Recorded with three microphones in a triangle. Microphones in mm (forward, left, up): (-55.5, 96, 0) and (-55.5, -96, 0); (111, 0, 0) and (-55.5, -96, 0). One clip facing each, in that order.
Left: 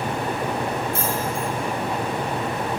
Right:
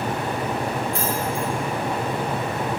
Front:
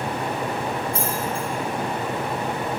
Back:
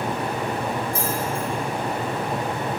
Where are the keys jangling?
175° left, 4 m.